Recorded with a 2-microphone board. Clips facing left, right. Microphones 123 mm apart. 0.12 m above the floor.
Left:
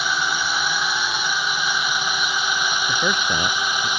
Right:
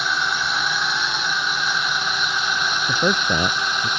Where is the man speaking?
20° right (ahead or behind).